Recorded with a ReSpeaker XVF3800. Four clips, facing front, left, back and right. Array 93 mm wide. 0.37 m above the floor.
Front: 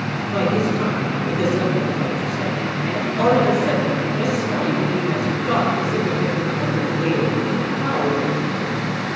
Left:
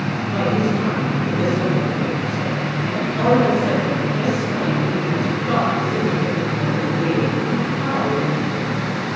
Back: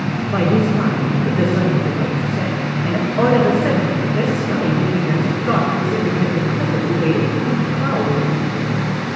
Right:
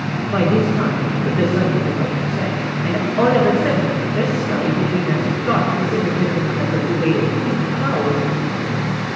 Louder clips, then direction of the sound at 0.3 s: Right 3 dB, back 3 dB; 130° right.